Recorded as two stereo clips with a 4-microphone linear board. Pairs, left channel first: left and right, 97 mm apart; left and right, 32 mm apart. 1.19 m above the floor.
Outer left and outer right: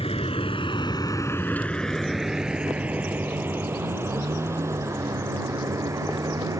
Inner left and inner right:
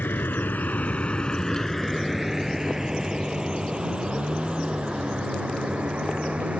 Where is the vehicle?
80° left; by 6.6 s 35° right (ahead or behind).